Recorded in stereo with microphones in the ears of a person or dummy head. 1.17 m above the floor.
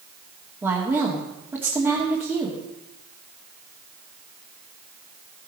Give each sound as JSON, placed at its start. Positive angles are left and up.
{"t": 0.6, "sound": "a woman speaking", "side_deg": -10, "distance_m": 2.5}